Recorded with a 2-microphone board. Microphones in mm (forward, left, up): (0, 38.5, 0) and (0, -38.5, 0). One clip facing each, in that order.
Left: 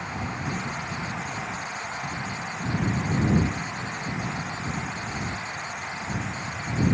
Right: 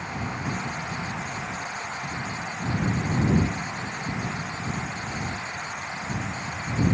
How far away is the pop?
No pop in this recording.